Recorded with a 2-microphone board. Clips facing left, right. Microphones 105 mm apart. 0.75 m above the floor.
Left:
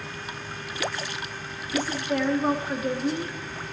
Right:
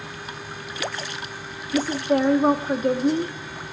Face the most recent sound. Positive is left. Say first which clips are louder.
# right 5 dB
turn(degrees=-40)  # may be behind; listen again after turning